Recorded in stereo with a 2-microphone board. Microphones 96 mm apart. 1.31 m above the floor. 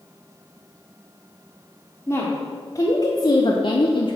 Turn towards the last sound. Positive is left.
turn(degrees=55)  # may be behind; listen again after turning